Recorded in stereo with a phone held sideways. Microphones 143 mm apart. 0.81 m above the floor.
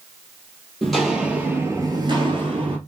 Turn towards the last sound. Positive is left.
turn(degrees=-40)  # may be behind; listen again after turning